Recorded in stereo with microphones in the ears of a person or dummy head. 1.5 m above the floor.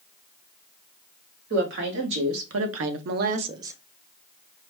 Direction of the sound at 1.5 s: 60° right (ahead or behind).